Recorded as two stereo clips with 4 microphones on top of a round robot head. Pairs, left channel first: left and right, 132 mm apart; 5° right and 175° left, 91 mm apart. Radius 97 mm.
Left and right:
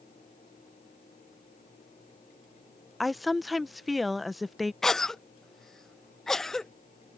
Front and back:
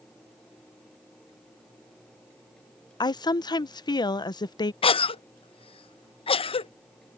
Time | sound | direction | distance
3.0 | a woman speaking | straight ahead | ?
4.8 | a cough | straight ahead | ?